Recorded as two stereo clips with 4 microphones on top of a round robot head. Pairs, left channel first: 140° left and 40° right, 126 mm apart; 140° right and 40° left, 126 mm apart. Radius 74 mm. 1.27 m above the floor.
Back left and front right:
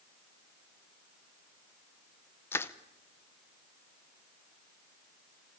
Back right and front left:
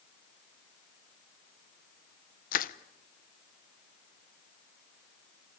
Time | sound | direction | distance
2.5 | crushing | 145° right | 0.8 m